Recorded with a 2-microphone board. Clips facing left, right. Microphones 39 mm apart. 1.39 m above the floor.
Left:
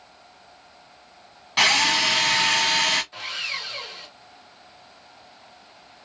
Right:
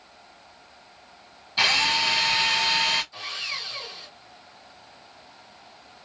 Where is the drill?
80° left, 1.3 m.